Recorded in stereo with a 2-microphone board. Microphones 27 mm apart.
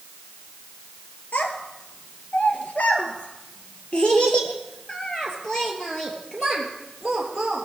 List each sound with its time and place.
1.3 s a child speaking: 75° left (ahead or behind), 2.5 m; by 7.7 s 5° left (ahead or behind), 3.5 m